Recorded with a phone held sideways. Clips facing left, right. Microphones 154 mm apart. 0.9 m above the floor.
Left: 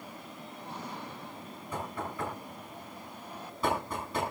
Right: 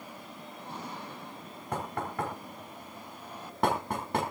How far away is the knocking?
About 5.5 m.